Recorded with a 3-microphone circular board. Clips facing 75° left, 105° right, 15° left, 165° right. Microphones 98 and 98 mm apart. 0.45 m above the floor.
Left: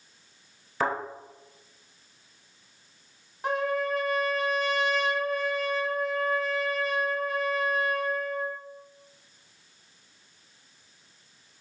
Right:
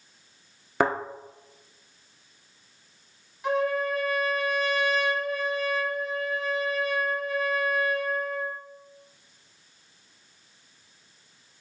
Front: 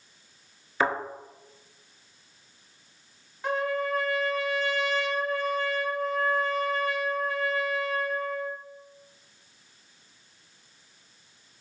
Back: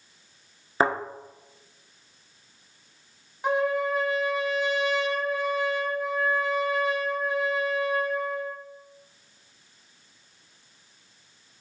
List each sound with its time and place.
0.8 s a thud: 115° right, 1.0 m
3.4 s a trumpet: 120° left, 0.9 m